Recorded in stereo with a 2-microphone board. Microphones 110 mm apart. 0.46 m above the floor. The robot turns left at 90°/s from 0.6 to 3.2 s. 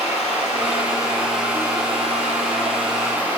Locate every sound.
0.0 s running water: 70° left, 3.5 m; by 3.4 s 165° right, 3.5 m